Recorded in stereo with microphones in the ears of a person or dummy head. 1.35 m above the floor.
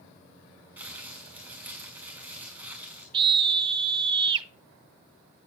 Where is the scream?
30° right (ahead or behind), 1.1 m.